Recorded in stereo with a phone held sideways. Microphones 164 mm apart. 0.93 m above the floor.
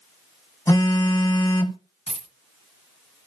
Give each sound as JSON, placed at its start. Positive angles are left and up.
{"t": 0.7, "sound": "a phone buzzing", "side_deg": 20, "distance_m": 0.7}
{"t": 2.1, "sound": "a dropped coin", "side_deg": 40, "distance_m": 1.6}